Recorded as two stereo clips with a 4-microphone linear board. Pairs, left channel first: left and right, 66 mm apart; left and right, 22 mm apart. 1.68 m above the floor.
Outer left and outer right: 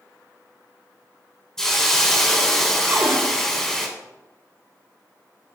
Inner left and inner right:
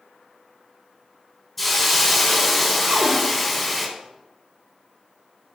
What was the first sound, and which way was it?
A hiss, 5° left (ahead or behind).